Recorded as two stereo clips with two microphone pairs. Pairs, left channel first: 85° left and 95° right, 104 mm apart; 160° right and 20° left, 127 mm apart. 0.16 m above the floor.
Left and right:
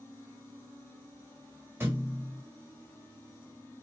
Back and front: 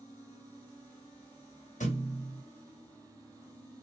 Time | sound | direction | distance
1.8 | a thud | 165° right | 1.7 m